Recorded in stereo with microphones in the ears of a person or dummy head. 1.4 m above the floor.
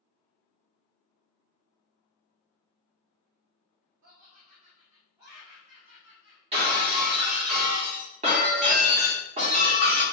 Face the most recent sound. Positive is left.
turn(degrees=-40)  # may be behind; listen again after turning